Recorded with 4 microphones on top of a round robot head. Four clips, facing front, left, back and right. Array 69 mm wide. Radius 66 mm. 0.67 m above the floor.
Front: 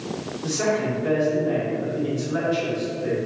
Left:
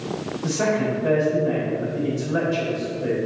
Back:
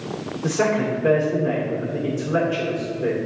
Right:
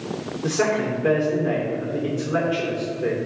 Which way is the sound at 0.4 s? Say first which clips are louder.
Even, back 3 dB; 130° right.